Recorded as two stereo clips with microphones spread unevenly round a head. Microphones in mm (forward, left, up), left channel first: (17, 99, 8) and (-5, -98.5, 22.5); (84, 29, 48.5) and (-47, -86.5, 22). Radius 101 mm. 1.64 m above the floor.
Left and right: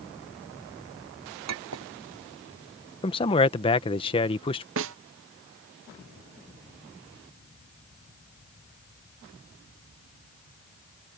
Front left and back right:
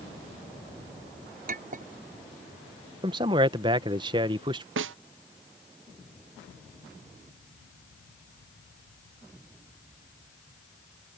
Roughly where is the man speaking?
Behind left.